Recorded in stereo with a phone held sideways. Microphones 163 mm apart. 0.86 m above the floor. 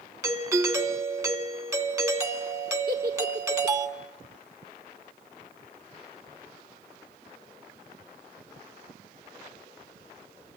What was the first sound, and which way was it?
A doorbell, 20° right (ahead or behind).